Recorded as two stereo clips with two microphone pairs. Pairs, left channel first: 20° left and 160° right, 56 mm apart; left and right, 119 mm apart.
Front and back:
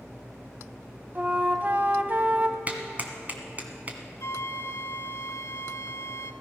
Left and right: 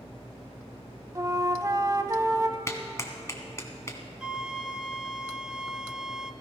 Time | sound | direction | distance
1.1 | a flute | 125° right | 0.9 m
2.7 | a clap | 150° left | 1.7 m
4.2 | a flute | 10° right | 0.8 m